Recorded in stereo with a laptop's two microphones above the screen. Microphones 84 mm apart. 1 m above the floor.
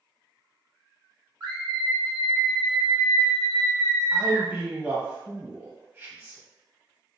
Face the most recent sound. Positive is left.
turn(degrees=-20)  # may be behind; listen again after turning